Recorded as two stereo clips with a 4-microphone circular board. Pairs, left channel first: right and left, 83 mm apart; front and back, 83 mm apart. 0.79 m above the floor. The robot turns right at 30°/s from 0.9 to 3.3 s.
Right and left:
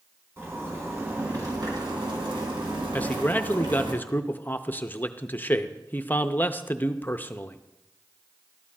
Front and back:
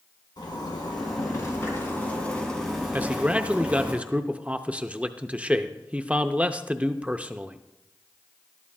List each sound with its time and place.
0.4 s a zipper: 35° left, 2.5 m; by 3.9 s 105° left, 2.5 m
2.9 s a man speaking: 135° right, 0.5 m; by 7.6 s 125° right, 0.5 m